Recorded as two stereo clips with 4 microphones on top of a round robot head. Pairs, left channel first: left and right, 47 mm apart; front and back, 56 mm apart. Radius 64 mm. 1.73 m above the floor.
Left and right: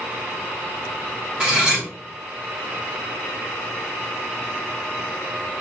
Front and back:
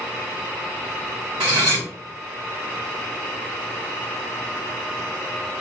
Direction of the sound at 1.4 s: 155° right.